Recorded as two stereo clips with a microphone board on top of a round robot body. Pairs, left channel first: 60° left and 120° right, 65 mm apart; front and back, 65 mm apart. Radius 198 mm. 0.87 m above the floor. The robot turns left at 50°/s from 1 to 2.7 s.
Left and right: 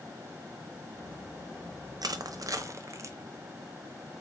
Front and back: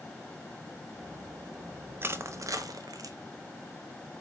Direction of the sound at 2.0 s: 125° right.